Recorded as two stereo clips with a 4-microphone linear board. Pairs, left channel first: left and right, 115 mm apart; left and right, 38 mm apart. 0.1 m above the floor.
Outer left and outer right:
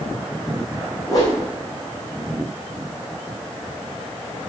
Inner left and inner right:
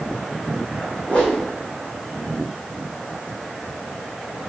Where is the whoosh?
30° left (ahead or behind), 3 m.